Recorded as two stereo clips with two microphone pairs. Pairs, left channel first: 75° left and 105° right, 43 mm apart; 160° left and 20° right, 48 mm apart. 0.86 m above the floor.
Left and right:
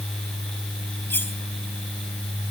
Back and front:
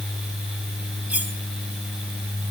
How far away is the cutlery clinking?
About 4 m.